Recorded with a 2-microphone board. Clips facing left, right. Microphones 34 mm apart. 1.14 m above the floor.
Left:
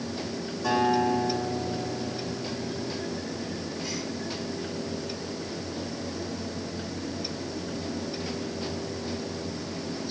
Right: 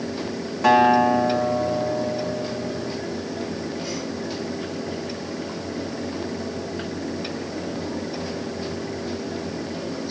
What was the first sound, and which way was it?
A guitar, 70° right (ahead or behind).